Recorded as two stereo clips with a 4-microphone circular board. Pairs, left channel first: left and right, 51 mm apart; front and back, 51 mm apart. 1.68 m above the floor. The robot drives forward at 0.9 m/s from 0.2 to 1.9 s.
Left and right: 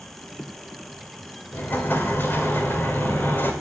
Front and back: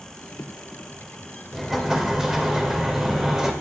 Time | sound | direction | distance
1.5 | an explosion | 90° left | 1.7 m